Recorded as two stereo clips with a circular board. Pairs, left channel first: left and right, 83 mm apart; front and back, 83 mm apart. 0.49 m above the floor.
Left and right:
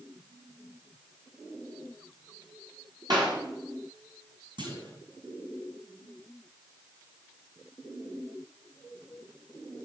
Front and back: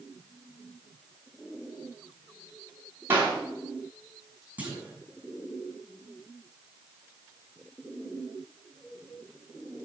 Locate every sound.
3.1 s a clap: 120° right, 5 m
4.6 s a clunk: 110° right, 3 m